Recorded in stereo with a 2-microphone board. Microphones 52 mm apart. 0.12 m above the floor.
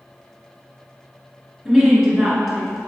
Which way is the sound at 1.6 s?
5° right (ahead or behind).